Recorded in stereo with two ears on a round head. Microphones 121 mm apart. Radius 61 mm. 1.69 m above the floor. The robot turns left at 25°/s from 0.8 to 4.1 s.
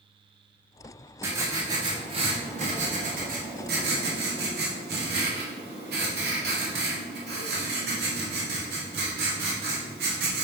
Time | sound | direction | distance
1.2 | writing | 15° right | 1.4 m